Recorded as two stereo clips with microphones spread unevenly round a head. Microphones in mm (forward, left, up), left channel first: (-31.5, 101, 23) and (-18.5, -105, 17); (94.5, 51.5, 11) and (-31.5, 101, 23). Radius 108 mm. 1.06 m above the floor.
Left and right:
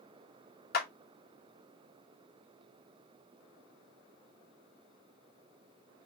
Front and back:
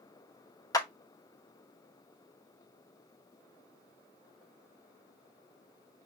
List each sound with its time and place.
0.7 s a clap: 45° left, 1.0 m